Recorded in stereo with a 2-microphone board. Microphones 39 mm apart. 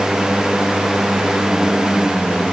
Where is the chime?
I don't hear a chime.